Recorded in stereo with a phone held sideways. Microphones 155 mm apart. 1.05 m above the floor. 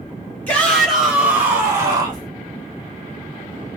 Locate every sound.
0.5 s a shout: 10° left (ahead or behind), 1.5 m; by 2.3 s 30° right (ahead or behind), 2 m